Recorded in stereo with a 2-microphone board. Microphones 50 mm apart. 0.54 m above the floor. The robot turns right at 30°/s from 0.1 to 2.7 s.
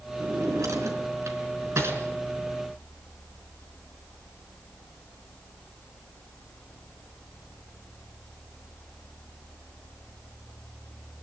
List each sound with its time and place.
0.2 s a drawer: 75° right (ahead or behind), 4 m; by 2.0 s 50° right (ahead or behind), 4 m